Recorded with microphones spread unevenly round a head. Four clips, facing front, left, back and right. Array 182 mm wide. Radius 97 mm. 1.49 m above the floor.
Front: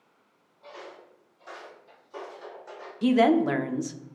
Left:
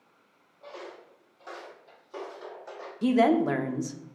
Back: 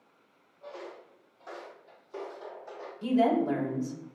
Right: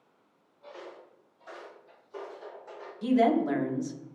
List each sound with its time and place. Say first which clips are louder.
0.6 s footsteps: left 2 dB, back 1 dB; 120° left, 2.0 m; by 2.9 s 75° left, 3 m
3.0 s a woman speaking: left 2 dB, front 5 dB; 45° left, 0.6 m